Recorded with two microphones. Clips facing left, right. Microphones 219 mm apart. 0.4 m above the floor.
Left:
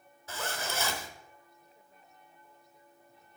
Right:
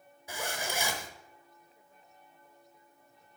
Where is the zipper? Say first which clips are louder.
Even; 15° right (ahead or behind), 0.9 m.